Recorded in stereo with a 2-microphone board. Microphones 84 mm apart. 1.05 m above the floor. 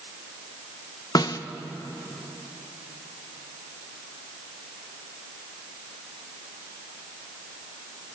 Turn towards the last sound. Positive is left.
turn(degrees=50)  # may be behind; listen again after turning